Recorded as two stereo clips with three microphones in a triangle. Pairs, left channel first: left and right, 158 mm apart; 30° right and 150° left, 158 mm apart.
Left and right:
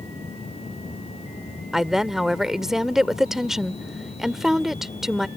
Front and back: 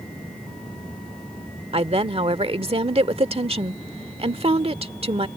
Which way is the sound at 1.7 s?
175° right.